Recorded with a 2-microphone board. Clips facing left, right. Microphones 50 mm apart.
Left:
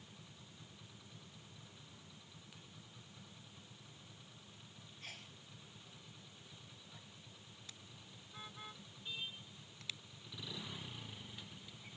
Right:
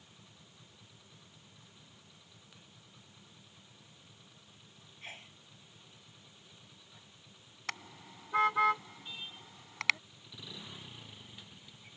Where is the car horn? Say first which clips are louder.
Right 19 dB; 85° right.